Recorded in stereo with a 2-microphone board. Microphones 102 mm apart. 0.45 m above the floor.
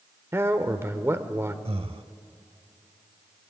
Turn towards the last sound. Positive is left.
turn(degrees=-70)  # may be behind; listen again after turning